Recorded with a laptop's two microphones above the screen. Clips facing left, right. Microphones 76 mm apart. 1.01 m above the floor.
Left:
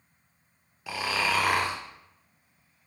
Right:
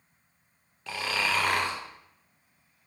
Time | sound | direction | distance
0.9 | snoring | 10° left (ahead or behind) | 0.7 m